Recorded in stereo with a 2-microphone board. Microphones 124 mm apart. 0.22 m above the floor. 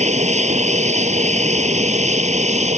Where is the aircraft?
65° right (ahead or behind); by 2.8 s 70° right (ahead or behind).